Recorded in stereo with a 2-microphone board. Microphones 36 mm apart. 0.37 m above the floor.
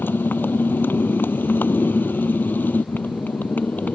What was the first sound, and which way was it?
A motorcycle, 80° left.